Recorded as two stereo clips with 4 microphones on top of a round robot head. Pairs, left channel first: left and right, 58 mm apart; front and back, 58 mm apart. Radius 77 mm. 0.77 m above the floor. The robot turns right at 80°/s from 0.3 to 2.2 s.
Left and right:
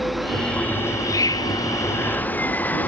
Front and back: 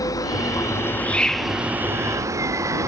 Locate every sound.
0.0 s an insect: straight ahead; by 2.9 s 150° left